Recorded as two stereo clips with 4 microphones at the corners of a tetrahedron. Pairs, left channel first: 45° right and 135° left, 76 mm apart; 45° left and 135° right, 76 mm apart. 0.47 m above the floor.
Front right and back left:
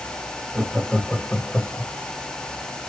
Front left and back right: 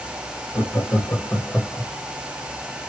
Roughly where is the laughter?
Ahead left.